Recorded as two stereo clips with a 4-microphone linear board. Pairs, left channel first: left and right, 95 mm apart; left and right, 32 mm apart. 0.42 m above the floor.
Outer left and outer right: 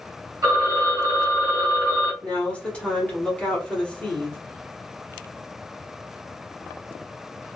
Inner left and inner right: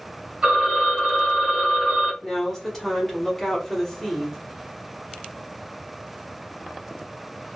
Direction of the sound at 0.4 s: 35° right (ahead or behind).